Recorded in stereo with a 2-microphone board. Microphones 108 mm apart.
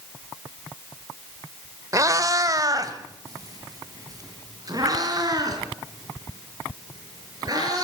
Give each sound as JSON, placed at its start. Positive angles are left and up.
{"t": 1.9, "sound": "a cat meowing", "side_deg": -30, "distance_m": 1.1}